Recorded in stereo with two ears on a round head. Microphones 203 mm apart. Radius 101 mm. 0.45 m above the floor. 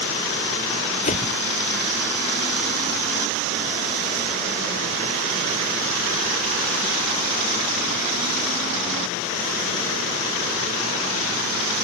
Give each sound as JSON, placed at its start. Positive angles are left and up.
{"t": 1.0, "sound": "a whoosh", "side_deg": 30}